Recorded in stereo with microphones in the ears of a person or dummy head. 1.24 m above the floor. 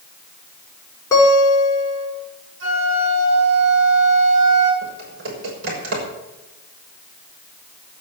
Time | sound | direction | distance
1.1 | a guitar | 20° left (ahead or behind) | 5 m
2.6 | a flute | 75° right (ahead or behind) | 7 m
4.8 | typing on a keyboard | 60° right (ahead or behind) | 6 m